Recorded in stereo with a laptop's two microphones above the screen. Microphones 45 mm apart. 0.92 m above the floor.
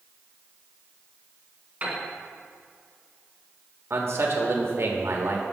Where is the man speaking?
60° right (ahead or behind), 1.3 m.